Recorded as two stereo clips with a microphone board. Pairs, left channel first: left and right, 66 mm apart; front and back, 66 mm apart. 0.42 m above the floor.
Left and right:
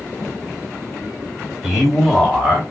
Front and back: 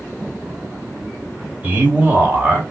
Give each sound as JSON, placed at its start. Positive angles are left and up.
{"t": 1.6, "sound": "a man speaking", "azimuth_deg": -175, "distance_m": 1.3}